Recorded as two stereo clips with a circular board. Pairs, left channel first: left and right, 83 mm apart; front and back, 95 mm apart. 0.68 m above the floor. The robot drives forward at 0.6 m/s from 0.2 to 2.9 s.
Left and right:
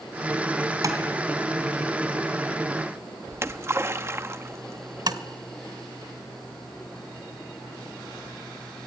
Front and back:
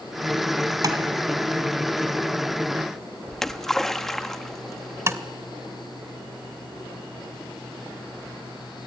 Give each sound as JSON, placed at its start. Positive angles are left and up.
{"t": 0.8, "sound": "tapping", "azimuth_deg": -130, "distance_m": 3.0}
{"t": 3.3, "sound": "a splash", "azimuth_deg": -80, "distance_m": 1.0}
{"t": 5.1, "sound": "tapping", "azimuth_deg": -120, "distance_m": 1.3}